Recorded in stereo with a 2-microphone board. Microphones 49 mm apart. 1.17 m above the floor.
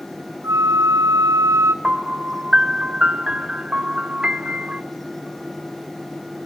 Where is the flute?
75° right (ahead or behind), 2 m.